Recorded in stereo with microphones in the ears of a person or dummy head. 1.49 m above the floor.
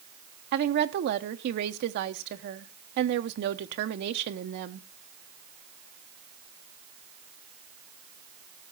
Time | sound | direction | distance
0.5 | a woman speaking | 55° right (ahead or behind) | 1.0 m